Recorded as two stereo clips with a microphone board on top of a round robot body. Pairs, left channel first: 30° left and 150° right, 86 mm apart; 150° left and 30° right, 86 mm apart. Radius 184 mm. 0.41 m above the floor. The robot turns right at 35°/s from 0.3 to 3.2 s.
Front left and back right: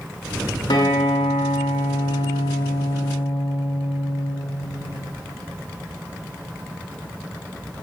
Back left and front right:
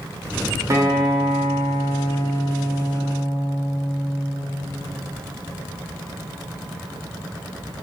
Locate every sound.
0.7 s a guitar: 15° left, 1.6 m; by 4.3 s 105° left, 1.6 m